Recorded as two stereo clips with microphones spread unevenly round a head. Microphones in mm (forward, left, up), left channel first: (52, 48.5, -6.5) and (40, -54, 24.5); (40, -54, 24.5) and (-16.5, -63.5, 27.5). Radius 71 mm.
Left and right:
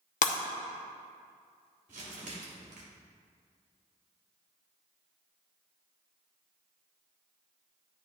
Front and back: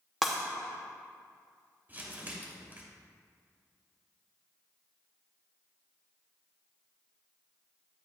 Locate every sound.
0.2 s breaking glass: 100° left, 0.8 m
1.9 s crumpling: 115° right, 3 m